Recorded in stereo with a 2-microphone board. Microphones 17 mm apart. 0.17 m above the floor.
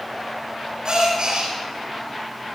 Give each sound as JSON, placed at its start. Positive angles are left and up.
{"t": 0.8, "sound": "a gasp", "side_deg": -80, "distance_m": 7.5}